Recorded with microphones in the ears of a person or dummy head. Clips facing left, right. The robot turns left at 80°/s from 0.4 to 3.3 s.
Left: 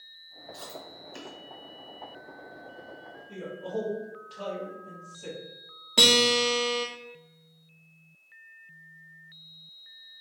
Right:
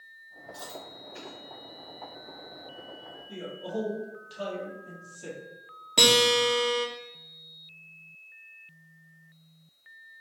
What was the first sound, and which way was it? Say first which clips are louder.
Chewing: right 1 dB; 20° left (ahead or behind).